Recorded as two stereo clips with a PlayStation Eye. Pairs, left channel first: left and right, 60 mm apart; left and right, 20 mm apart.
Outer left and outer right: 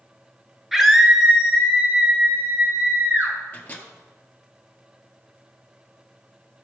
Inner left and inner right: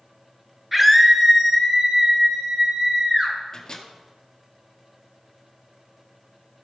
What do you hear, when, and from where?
0.7 s a scream: 5° right (ahead or behind), 1.6 m; by 3.3 s 40° right (ahead or behind), 5 m
3.5 s a microwave: 25° left (ahead or behind), 1.9 m